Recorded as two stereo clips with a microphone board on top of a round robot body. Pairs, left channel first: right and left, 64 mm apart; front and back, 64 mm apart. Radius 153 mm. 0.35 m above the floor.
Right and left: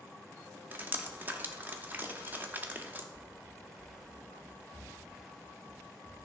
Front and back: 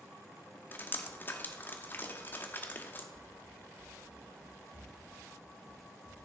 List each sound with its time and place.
0.7 s dripping: 40° left, 1.3 m
3.1 s running footsteps: 170° right, 1.1 m; by 6.2 s 140° left, 4 m